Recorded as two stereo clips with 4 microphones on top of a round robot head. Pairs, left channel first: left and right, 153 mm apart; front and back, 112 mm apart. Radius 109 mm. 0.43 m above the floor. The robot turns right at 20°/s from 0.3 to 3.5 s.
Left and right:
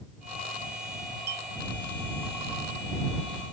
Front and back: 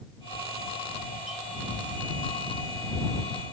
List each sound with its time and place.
1.3 s a clink: 95° right; by 1.5 s 90° right